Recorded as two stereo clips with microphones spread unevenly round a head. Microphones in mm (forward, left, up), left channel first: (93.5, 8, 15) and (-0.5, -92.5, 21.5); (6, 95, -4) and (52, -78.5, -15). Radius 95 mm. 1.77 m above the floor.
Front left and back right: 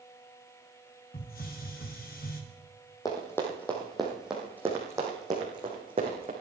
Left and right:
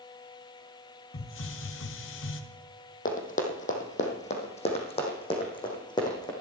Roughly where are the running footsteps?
Behind left.